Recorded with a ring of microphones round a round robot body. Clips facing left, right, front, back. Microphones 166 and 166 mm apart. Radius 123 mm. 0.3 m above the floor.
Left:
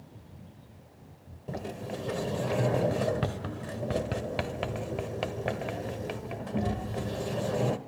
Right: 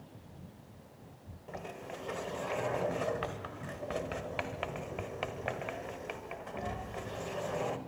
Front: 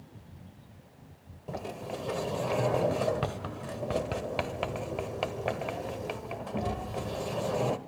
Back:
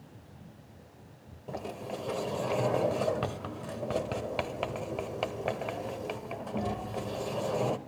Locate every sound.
1.5 s a sliding door: 90° left, 1.2 m